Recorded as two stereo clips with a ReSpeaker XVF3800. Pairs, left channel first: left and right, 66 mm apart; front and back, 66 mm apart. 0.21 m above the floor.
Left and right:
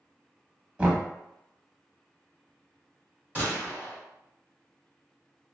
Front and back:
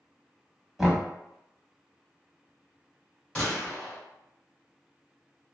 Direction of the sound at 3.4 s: 65° right.